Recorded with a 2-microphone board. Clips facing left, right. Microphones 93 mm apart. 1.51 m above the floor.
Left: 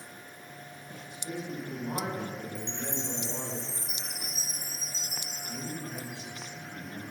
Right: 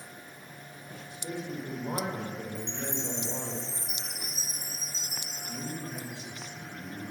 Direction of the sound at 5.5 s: 5° left (ahead or behind).